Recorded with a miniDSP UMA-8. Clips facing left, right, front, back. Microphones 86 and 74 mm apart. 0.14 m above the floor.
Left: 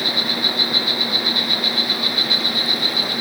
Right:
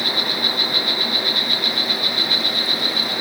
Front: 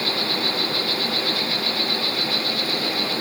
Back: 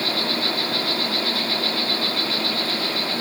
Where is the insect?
165° left, 9.5 m.